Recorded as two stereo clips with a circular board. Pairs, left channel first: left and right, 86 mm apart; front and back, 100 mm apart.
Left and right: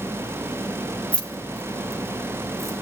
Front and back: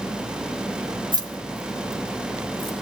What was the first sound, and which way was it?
Keys jangling, 160° left.